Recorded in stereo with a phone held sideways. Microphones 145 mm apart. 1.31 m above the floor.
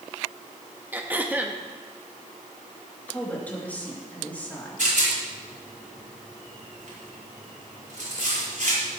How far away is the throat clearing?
About 1.0 m.